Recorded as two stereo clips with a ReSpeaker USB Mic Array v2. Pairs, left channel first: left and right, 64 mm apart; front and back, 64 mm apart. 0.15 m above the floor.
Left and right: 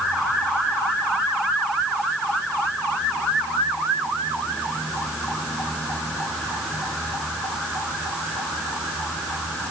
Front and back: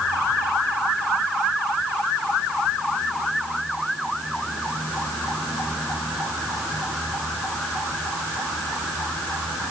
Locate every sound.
Only background noise.